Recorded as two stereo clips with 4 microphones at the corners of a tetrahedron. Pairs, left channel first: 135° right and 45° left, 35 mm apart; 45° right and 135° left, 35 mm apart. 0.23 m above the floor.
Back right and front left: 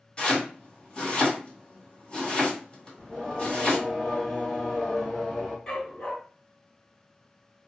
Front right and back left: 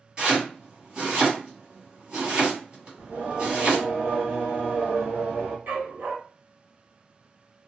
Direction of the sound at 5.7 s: 150° left.